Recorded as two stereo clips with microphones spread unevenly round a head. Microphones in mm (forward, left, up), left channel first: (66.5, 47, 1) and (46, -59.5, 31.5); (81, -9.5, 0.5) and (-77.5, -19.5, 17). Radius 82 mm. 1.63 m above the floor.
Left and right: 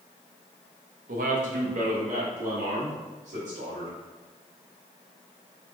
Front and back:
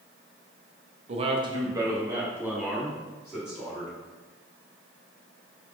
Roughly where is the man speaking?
Behind right.